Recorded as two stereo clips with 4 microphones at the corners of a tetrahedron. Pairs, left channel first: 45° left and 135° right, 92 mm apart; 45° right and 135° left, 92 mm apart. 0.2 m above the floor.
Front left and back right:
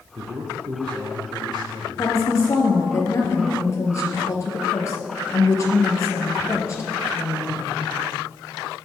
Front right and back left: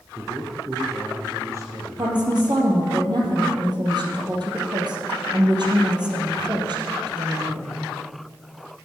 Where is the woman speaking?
100° left, 4 m.